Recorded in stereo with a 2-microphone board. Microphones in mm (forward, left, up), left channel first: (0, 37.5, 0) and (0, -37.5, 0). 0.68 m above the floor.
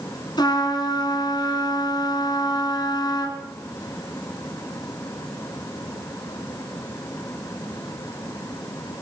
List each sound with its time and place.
0.4 s a trumpet: 70° left (ahead or behind), 4 m